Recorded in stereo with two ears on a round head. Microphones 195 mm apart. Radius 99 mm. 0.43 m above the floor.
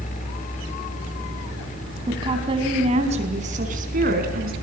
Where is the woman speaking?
20° right (ahead or behind), 3.5 m; by 4.5 s 45° right (ahead or behind), 4.5 m.